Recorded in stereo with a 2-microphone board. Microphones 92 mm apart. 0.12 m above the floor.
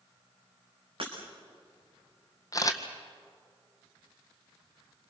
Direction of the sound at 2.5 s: 35° left (ahead or behind).